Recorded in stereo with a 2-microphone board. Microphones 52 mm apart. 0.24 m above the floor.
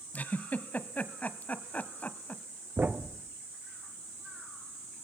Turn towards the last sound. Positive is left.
turn(degrees=-35)  # may be behind; listen again after turning